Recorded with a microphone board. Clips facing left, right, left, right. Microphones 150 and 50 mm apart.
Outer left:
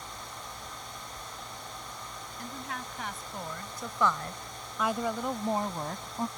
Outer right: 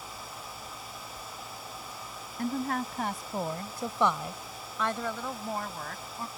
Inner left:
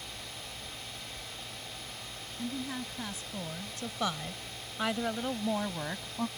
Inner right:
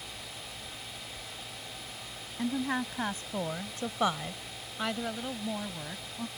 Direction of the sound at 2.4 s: 55° right (ahead or behind).